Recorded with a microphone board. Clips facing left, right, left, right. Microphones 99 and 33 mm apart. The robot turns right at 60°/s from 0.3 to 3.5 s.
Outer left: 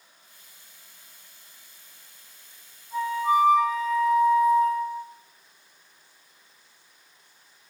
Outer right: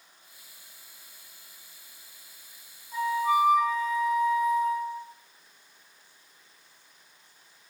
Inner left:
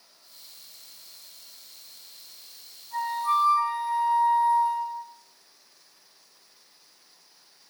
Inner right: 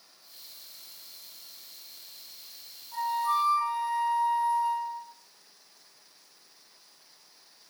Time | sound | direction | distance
2.9 | a flute | 105° left | 0.7 m